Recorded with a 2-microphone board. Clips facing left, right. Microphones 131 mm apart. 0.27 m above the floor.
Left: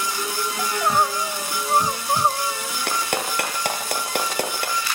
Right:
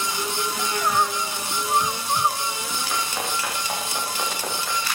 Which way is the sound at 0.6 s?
30° left (ahead or behind).